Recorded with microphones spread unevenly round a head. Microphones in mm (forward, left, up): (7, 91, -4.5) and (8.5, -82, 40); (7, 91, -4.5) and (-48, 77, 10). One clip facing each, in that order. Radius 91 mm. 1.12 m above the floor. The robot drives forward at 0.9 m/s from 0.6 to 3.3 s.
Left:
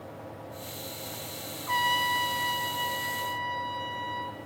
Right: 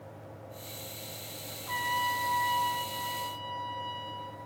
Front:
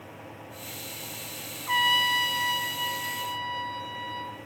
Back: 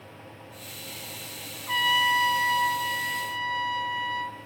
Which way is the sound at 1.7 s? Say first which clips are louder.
Left 4 dB, back 1 dB; 100° left.